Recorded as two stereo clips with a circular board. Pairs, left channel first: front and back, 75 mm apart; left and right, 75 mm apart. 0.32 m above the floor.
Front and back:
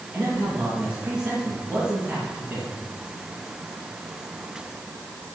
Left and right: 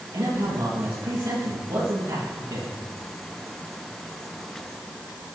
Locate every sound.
0.1 s a man speaking: 105° right, 7 m